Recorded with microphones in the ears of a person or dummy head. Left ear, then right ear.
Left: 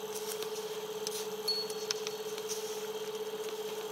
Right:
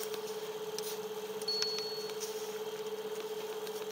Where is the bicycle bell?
25° left (ahead or behind), 4.5 m.